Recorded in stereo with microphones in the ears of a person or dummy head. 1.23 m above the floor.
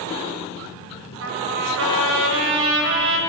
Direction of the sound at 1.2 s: 70° right (ahead or behind).